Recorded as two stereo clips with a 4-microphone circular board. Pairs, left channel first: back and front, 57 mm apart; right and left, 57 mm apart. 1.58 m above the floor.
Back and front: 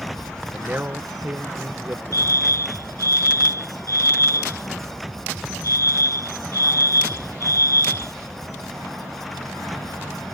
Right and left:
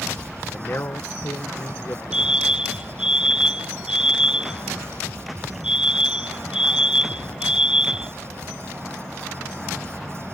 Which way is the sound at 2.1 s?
165° left.